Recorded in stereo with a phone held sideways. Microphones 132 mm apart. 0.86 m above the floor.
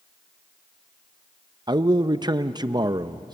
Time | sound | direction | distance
1.7 | a man speaking | 35° right (ahead or behind) | 0.5 m